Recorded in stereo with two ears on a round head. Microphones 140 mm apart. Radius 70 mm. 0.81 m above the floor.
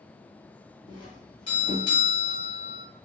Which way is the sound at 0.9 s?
35° left (ahead or behind).